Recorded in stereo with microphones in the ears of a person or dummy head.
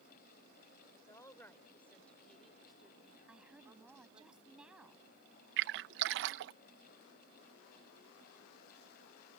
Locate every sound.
0.9 s a woman speaking: 20° left (ahead or behind); by 4.3 s 25° right (ahead or behind)
3.3 s a woman speaking: 5° right (ahead or behind)
5.6 s a splash: 60° right (ahead or behind)